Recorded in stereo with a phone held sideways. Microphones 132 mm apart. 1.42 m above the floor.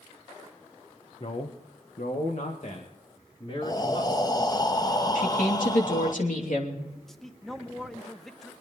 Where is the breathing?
30° left (ahead or behind), 0.7 m.